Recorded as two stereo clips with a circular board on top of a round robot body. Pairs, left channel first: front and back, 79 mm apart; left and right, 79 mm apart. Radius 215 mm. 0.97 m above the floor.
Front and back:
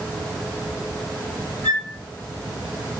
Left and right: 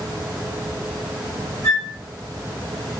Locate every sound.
1.6 s a flute: 65° right, 1.8 m